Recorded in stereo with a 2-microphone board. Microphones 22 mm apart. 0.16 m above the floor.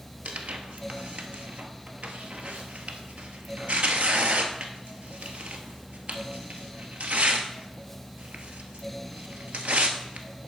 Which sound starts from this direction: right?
Tearing paper, at 0.2 s.